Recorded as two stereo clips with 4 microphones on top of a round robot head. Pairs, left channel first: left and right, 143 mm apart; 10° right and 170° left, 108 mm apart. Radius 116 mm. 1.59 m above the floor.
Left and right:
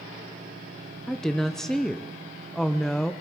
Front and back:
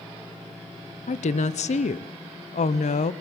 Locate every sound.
1.1 s a woman speaking: 5° left, 0.9 m